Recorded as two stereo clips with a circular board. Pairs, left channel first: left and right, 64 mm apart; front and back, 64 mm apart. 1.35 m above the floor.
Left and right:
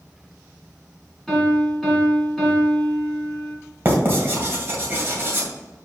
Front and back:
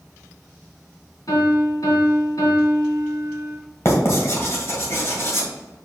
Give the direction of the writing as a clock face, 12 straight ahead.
1 o'clock.